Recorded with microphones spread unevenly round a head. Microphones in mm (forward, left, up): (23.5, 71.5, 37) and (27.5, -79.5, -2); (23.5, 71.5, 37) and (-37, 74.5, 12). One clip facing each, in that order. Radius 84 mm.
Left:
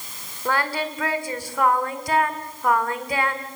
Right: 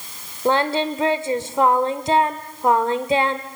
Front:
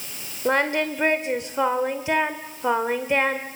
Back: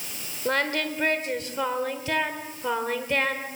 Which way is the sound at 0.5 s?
15° right.